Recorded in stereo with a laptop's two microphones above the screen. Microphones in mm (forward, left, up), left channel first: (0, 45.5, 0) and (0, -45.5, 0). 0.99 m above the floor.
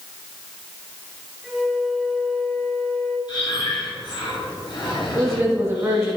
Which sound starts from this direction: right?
A woman speaking, at 5.1 s.